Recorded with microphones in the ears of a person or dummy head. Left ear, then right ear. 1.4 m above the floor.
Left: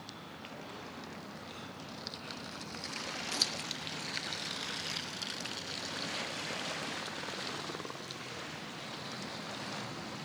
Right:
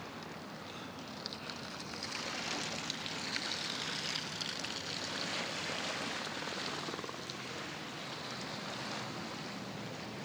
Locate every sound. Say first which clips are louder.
3.3 s scissors: left 6 dB; 65° left (ahead or behind), 0.9 m